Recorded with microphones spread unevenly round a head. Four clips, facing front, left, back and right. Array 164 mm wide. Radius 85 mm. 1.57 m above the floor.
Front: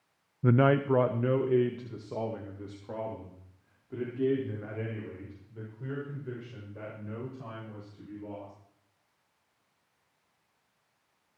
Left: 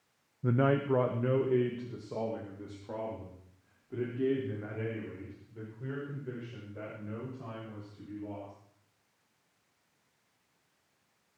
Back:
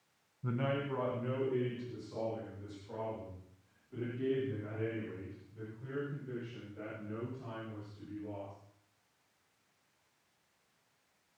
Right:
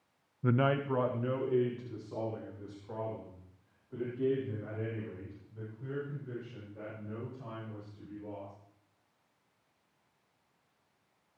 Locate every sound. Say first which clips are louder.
0.4 s a man speaking: left 2 dB, front 12 dB; 10° left, 0.5 m; by 8.5 s 45° left, 10 m